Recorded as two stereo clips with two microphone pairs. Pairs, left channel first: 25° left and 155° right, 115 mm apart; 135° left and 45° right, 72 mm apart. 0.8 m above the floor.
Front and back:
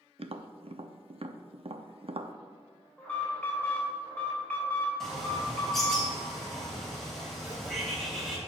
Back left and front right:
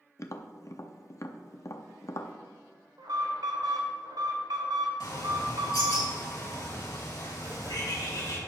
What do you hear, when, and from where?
0.2 s tapping: 175° left, 0.6 m
3.0 s an alarm: 55° right, 3 m
5.0 s a bird: 110° left, 3.5 m
7.4 s writing: 80° right, 1.9 m